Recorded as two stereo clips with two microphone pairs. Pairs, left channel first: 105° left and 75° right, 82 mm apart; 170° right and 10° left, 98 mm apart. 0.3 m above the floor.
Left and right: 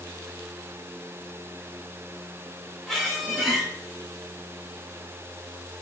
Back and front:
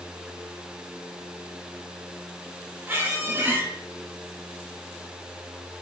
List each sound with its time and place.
2.9 s a squeak: 20° left, 0.5 m